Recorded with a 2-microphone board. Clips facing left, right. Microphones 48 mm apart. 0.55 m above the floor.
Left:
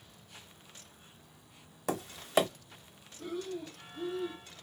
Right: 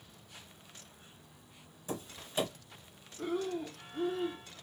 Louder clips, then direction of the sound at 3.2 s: Right 4 dB; 50° right (ahead or behind).